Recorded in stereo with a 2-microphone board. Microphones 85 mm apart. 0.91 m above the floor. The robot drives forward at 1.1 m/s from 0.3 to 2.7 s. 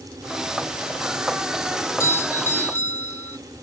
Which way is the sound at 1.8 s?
35° left (ahead or behind).